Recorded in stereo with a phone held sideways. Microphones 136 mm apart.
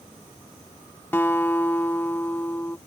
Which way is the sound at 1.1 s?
15° left (ahead or behind).